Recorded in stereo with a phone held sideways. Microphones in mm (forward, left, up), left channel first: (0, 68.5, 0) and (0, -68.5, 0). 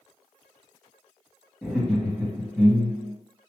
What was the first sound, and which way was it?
Laughter, centre (ahead or behind).